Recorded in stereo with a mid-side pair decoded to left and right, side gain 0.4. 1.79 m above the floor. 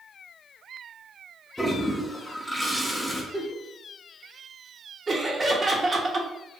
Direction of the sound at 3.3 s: Straight ahead.